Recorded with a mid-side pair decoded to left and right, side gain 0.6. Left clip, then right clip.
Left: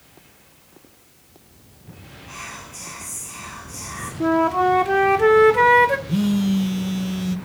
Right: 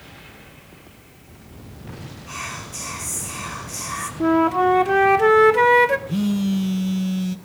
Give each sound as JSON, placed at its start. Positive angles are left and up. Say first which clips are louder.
{"t": 2.3, "sound": "whispering", "louder": "right 4 dB", "azimuth_deg": -40, "distance_m": 5.5}
{"t": 4.2, "sound": "a flute", "louder": "even", "azimuth_deg": -5, "distance_m": 1.5}
{"t": 6.1, "sound": "a phone buzzing", "louder": "left 1 dB", "azimuth_deg": 10, "distance_m": 1.0}